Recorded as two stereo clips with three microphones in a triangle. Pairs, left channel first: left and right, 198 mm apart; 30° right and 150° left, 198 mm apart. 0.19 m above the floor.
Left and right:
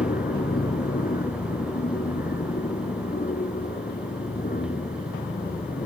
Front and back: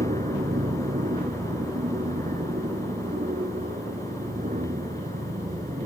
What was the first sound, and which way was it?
An aircraft, 115° left.